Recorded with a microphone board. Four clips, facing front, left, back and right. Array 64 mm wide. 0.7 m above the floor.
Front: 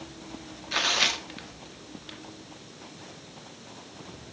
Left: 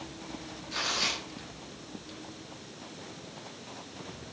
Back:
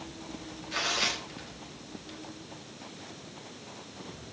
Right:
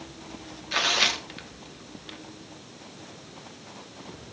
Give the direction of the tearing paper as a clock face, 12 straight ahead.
2 o'clock.